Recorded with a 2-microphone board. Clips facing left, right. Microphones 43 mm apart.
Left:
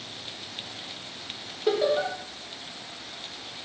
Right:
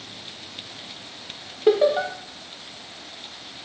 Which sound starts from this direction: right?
Laughter, at 1.7 s.